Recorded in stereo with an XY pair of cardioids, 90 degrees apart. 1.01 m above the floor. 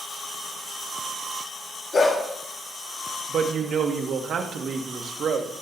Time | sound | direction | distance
1.9 | a dog barking | 40° left | 5.5 m
3.3 | a woman speaking | 65° right | 1.6 m